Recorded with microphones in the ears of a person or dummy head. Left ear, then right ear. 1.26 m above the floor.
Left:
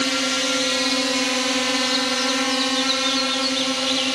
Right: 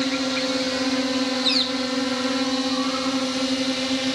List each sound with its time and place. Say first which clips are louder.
0.0 s a drone: left 3 dB; 55° left (ahead or behind); by 4.2 s 45° left (ahead or behind)